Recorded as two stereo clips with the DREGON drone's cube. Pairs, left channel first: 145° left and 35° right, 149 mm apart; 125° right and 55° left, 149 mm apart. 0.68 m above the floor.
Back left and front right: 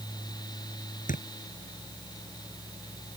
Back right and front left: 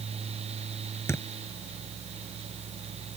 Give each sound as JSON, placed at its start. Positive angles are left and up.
{"t": 1.1, "sound": "a thud", "azimuth_deg": 165}